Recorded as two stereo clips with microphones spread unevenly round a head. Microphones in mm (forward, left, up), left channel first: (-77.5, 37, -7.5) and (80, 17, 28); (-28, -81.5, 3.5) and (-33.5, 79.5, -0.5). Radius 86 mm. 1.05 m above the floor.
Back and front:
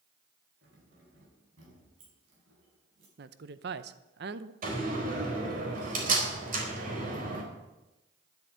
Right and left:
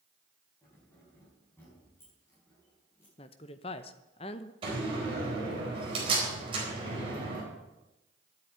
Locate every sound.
0.6 s keys jangling: 10° right, 4.5 m
3.2 s a woman speaking: 35° right, 0.8 m
4.6 s a door slam: 30° left, 4.5 m